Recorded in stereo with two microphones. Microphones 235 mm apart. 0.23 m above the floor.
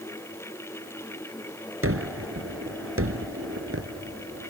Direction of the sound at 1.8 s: 60° right (ahead or behind).